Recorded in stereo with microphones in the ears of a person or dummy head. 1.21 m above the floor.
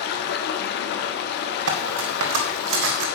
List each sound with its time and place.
0.0 s running water: 65° left (ahead or behind), 1.8 m
1.7 s cutlery clinking: 75° right (ahead or behind), 2 m